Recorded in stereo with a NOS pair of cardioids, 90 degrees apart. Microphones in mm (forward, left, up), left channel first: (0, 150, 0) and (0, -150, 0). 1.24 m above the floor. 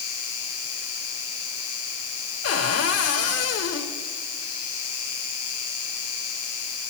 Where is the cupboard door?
50° left, 2.5 m.